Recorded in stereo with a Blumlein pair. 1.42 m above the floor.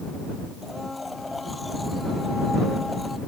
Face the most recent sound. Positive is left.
turn(degrees=5)